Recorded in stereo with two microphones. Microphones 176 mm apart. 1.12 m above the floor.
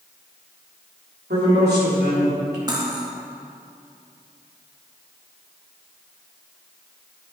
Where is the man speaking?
80° right, 3.5 m.